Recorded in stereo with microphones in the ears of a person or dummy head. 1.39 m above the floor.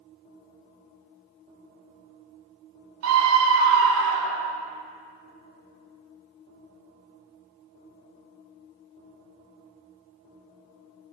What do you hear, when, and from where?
3.0 s a scream: 70° right (ahead or behind), 0.7 m; by 4.5 s 65° right (ahead or behind), 1.1 m